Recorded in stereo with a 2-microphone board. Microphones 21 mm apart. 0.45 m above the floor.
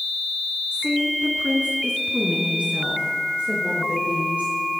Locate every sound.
0.7 s a woman speaking: 60° right (ahead or behind), 5 m; by 4.6 s 80° right, 8.5 m